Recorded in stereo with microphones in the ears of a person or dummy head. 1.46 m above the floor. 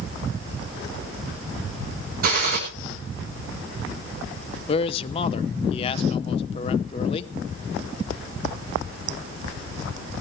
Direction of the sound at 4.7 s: 35° left (ahead or behind).